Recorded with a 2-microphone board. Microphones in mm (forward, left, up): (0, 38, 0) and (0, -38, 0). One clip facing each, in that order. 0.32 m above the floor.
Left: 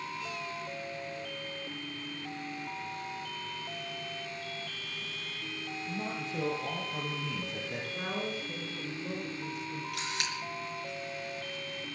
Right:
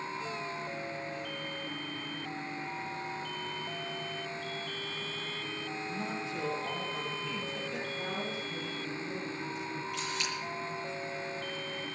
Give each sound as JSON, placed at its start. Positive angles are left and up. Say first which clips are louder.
{"t": 5.9, "sound": "a man speaking", "louder": "left 2 dB", "side_deg": 50, "distance_m": 7.0}
{"t": 7.9, "sound": "a woman speaking", "louder": "left 1 dB", "side_deg": 60, "distance_m": 4.5}
{"t": 9.9, "sound": "a camera shutter", "louder": "even", "side_deg": 70, "distance_m": 6.0}